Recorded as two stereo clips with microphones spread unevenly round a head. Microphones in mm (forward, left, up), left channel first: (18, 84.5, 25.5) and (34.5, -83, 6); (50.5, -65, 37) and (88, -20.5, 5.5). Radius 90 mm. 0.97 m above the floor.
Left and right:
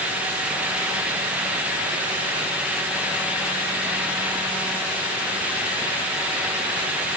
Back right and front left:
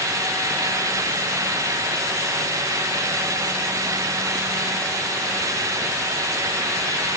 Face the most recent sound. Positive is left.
No sound to turn to.